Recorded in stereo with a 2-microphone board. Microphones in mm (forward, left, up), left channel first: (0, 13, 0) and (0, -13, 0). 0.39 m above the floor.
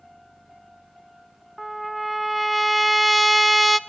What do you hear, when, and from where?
1.6 s a trumpet: centre (ahead or behind), 0.6 m